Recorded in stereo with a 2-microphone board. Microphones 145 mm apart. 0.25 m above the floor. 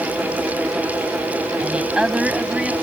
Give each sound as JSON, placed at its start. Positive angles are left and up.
{"t": 1.6, "sound": "a woman speaking", "side_deg": -10}